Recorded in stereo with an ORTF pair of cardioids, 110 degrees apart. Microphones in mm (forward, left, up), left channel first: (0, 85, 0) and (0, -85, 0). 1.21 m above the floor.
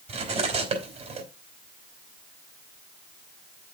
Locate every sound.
0.1 s cutlery clinking: 40° right, 3.5 m